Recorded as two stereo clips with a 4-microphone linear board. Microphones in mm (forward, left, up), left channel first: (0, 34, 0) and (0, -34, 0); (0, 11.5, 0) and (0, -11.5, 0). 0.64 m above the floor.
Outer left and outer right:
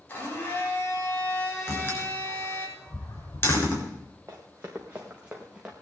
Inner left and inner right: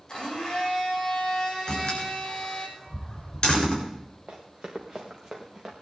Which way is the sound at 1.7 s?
35° left (ahead or behind).